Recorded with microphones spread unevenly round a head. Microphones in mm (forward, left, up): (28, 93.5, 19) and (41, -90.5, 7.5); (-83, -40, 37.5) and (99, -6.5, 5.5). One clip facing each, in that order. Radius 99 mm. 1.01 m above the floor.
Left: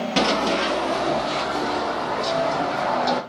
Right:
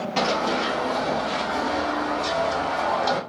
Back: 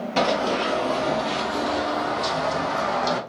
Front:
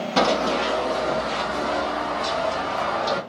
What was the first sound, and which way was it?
Running footsteps, 105° left.